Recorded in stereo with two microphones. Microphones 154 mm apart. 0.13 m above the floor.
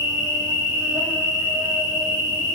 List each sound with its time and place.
0.0 s an insect: 35° right (ahead or behind), 1.8 m